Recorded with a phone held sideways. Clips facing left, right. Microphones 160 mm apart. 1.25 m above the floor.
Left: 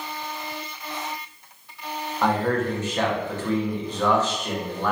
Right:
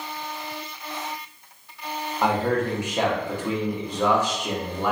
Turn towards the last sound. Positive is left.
turn(degrees=-10)  # may be behind; listen again after turning